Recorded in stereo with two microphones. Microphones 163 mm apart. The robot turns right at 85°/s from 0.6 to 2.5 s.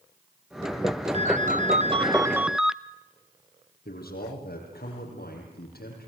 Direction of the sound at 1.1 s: 120° right.